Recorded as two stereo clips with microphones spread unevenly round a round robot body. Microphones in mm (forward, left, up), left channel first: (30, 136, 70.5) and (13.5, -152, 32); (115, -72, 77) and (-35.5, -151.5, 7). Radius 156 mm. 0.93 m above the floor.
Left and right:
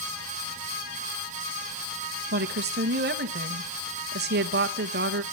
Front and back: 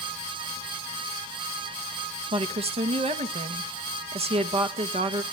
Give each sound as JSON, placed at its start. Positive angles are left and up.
{"t": 2.3, "sound": "a woman speaking", "azimuth_deg": -135, "distance_m": 1.4}